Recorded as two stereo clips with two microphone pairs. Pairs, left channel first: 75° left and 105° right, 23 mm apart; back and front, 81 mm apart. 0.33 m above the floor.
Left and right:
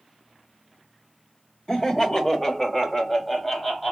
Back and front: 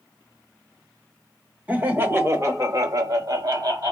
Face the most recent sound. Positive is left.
turn(degrees=5)